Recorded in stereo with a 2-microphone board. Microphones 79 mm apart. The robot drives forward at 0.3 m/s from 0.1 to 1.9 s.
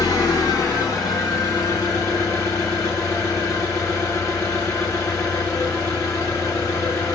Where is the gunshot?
No gunshot in this recording.